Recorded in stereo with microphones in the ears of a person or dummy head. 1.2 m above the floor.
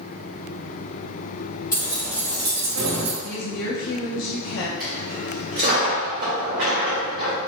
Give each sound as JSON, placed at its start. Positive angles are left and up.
{"t": 1.7, "sound": "keys jangling", "side_deg": 20, "distance_m": 1.1}
{"t": 3.2, "sound": "a woman speaking", "side_deg": 70, "distance_m": 0.5}
{"t": 4.8, "sound": "a dropped coin", "side_deg": -40, "distance_m": 0.9}